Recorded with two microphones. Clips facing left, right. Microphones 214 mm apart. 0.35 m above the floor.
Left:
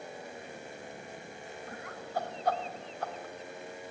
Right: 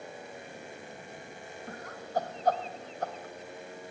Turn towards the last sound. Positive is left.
turn(degrees=-40)  # may be behind; listen again after turning